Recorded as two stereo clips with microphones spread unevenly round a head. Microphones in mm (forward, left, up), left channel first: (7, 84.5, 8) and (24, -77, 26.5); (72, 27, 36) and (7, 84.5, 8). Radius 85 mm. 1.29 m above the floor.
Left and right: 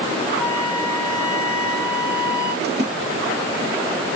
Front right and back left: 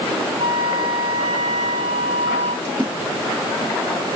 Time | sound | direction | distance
0.4 | a flute | 165° right | 1.9 m
2.6 | a splash | 120° right | 1.4 m